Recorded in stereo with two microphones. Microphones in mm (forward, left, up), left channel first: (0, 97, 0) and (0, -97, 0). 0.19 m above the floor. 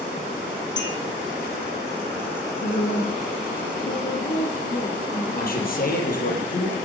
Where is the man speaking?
50° left (ahead or behind), 5.5 m.